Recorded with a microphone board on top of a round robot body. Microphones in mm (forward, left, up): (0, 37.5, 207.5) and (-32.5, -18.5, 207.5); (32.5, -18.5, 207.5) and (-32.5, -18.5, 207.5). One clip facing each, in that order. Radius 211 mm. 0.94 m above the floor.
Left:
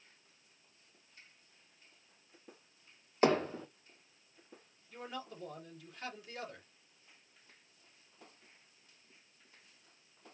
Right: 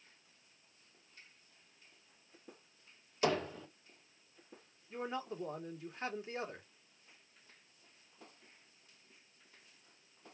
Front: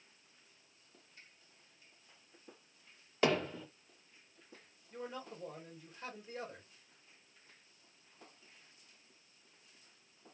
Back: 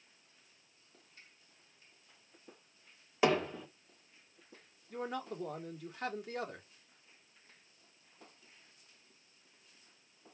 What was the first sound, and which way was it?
Hammering, 100° left.